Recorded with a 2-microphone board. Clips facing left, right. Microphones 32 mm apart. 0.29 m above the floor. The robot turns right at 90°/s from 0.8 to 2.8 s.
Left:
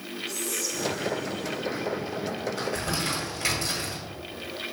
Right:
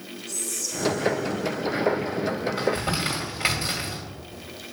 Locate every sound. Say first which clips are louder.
0.3 s whispering: left 1 dB; 15° left, 1.7 m; by 1.6 s 85° left, 1.7 m
2.6 s crumpling: right 4 dB; 25° right (ahead or behind), 1.8 m; by 4.0 s 30° right (ahead or behind), 1.8 m